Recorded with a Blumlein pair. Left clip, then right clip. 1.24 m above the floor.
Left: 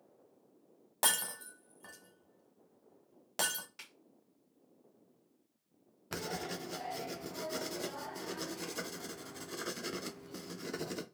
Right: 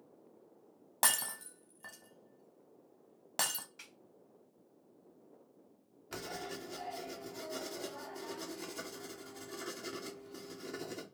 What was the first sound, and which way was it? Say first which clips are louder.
Breaking glass: even; 5° right.